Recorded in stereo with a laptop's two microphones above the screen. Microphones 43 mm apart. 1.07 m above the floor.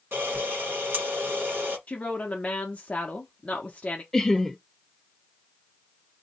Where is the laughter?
10° left (ahead or behind), 0.7 m.